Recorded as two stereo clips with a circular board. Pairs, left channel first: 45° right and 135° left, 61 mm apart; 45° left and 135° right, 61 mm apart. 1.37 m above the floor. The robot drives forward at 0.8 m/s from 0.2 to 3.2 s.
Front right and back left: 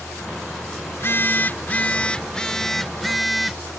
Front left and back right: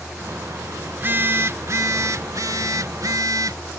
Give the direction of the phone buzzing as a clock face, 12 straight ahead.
3 o'clock.